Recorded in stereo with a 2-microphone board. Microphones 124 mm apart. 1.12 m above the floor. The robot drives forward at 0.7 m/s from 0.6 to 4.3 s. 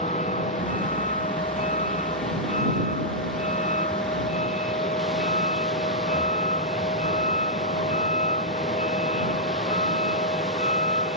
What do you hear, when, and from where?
0.0 s a vehicle: 75° left (ahead or behind); by 11.2 s 70° left (ahead or behind)